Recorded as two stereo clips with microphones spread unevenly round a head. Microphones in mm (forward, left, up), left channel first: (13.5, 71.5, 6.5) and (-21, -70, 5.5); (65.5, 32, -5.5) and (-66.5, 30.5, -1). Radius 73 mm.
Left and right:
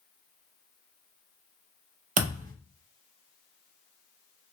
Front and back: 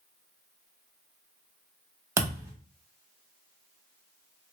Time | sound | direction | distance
2.2 | a thud | 115° right | 0.7 m